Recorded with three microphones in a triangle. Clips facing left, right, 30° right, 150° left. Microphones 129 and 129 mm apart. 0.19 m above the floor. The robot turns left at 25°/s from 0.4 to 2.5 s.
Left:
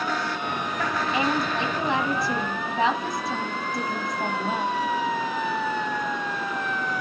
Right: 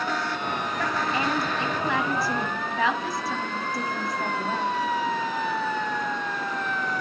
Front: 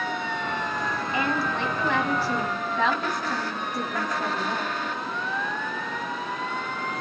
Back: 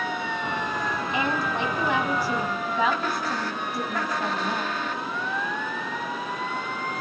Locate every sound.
1.1 s a woman speaking: 120° left, 1.0 m; by 4.8 s 90° left, 1.0 m